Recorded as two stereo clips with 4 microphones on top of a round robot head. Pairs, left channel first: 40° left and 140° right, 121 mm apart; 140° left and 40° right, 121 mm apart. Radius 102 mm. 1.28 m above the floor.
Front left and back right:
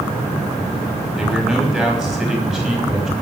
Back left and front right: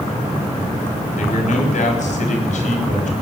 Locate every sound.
1.1 s a man speaking: 130° left, 5.5 m